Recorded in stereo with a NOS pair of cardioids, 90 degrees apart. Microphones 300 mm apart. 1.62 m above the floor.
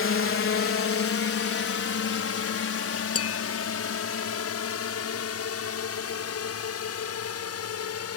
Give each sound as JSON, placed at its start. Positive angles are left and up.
{"t": 0.0, "sound": "a drone", "azimuth_deg": 45}
{"t": 3.1, "sound": "tapping", "azimuth_deg": 50}